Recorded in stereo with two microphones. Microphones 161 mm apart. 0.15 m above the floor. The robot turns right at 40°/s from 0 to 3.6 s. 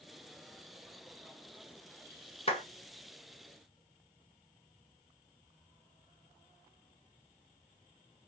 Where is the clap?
40° left (ahead or behind), 1.2 m.